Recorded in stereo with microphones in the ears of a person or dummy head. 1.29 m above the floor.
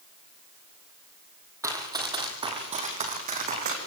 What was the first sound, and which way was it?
Running footsteps, 10° right (ahead or behind).